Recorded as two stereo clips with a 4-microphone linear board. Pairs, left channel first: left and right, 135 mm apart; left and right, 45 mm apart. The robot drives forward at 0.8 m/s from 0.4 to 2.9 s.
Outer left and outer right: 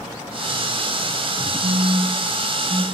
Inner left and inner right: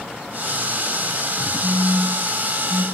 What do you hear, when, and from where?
1.6 s a phone buzzing: 75° right (ahead or behind), 0.9 m; by 2.8 s 35° right (ahead or behind), 1.4 m